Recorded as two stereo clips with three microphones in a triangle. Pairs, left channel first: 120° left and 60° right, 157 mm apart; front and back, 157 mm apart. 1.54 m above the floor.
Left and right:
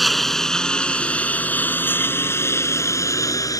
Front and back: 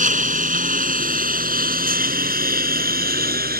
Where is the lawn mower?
150° right; by 3.6 s 170° right.